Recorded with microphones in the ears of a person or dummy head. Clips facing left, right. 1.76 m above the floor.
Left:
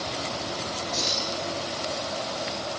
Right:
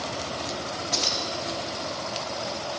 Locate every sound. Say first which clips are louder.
0.9 s keys jangling: right 1 dB; 40° right (ahead or behind), 1.6 m